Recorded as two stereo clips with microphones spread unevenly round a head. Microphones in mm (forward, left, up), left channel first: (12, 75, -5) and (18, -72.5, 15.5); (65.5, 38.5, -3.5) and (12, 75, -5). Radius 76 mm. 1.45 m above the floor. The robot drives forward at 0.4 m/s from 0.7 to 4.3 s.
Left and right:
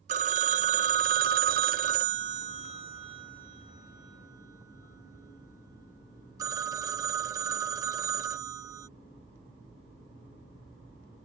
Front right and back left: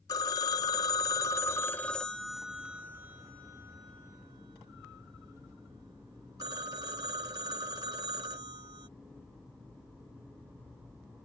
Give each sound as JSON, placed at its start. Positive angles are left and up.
{"t": 0.1, "sound": "a phone ringing", "azimuth_deg": -60}